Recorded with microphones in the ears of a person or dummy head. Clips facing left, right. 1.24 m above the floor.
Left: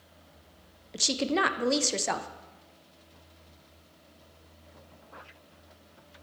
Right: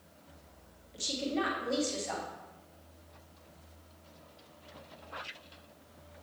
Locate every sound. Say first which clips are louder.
0.9 s a woman speaking: left 5 dB; 70° left (ahead or behind), 0.5 m